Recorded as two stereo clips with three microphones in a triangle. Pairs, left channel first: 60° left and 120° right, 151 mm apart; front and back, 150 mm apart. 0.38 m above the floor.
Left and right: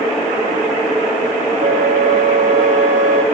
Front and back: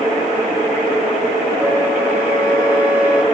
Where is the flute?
105° right, 1.1 m.